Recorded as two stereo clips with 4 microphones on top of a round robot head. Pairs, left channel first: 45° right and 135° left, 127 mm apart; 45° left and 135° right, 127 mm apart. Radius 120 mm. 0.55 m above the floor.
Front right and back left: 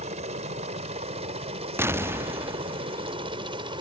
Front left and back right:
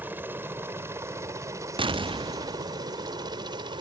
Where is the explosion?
160° right.